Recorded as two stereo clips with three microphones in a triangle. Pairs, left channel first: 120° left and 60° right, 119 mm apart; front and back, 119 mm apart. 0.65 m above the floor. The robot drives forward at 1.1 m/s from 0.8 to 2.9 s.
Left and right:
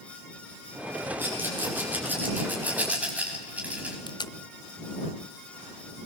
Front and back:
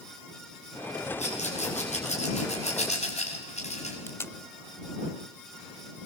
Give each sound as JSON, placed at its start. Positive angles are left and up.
{"t": 1.2, "sound": "a rattle", "azimuth_deg": 15, "distance_m": 6.5}
{"t": 4.1, "sound": "tape being pulled", "azimuth_deg": 65, "distance_m": 0.6}